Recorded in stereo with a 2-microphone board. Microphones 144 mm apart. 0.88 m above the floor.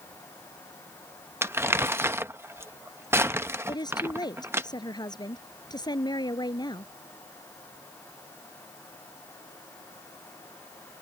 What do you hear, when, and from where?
1.4 s crumpling: 15° right (ahead or behind)
3.7 s a woman speaking: 30° left (ahead or behind)